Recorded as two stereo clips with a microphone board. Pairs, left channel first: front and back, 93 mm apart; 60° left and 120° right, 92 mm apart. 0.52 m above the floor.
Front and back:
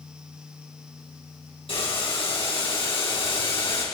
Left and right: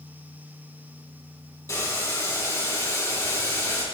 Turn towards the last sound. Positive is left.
turn(degrees=5)